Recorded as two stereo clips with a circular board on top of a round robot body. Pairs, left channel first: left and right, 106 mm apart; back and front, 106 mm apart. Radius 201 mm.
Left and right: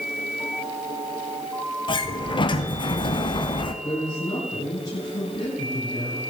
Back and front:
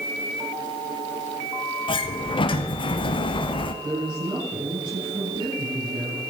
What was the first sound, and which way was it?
A sliding door, 135° left.